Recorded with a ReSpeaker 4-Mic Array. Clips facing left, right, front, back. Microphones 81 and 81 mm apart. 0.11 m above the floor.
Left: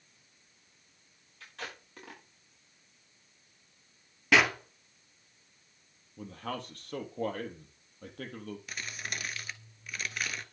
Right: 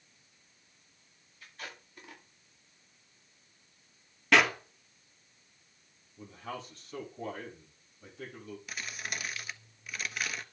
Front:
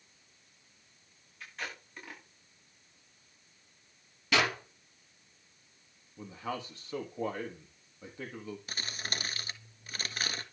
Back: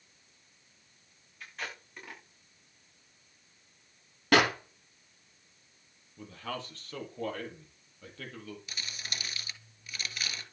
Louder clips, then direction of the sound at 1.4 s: Left 3 dB, even; 90° left.